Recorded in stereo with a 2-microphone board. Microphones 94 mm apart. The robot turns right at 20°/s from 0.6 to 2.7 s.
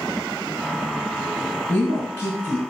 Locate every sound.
1.7 s a woman speaking: 20° left (ahead or behind), 1.4 m; by 2.7 s 25° left (ahead or behind), 1.4 m